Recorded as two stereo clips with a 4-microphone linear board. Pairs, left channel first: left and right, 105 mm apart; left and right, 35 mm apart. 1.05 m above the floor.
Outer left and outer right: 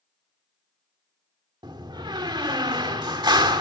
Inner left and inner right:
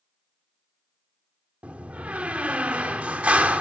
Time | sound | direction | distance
1.6 | a door slam | 45° right (ahead or behind) | 1.9 m